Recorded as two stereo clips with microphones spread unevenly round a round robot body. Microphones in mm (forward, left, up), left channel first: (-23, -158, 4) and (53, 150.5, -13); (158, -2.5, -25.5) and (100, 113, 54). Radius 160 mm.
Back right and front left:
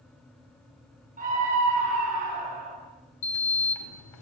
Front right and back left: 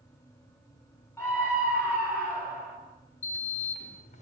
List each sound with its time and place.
1.2 s a scream: 10° left, 9.5 m
3.2 s a sliding door: 85° right, 3 m